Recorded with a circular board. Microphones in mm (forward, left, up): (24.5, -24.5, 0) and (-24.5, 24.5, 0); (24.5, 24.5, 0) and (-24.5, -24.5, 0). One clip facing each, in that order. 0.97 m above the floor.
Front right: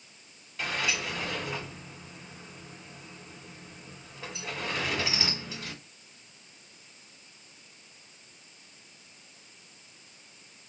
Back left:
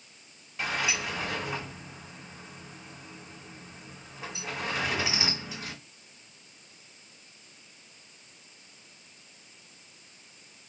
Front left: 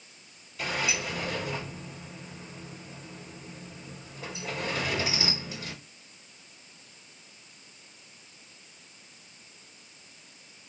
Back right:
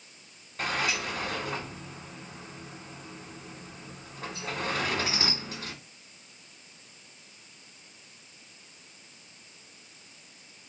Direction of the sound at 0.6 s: 150° right.